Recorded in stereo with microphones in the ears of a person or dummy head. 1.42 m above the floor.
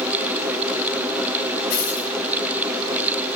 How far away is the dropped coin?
About 3.5 m.